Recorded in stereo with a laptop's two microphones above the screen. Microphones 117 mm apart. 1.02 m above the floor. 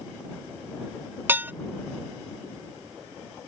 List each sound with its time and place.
1.3 s dishes clattering: 20° right (ahead or behind)